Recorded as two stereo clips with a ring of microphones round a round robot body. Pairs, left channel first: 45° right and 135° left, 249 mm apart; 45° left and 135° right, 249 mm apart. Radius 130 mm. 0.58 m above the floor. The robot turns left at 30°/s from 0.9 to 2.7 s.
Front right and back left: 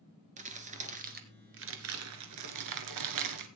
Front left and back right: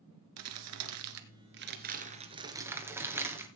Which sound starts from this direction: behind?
Crumpling, at 0.4 s.